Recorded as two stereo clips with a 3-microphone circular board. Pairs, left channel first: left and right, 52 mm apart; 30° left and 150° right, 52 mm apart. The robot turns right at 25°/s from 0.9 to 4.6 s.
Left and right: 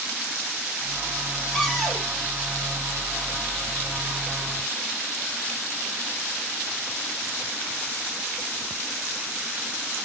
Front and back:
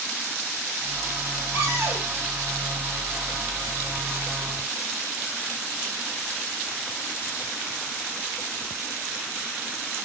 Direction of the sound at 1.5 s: 165° left.